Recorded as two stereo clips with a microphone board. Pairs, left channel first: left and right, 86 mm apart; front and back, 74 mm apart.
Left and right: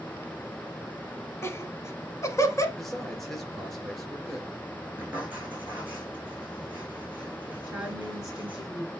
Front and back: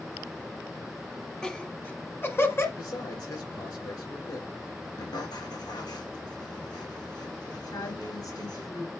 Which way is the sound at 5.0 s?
15° right.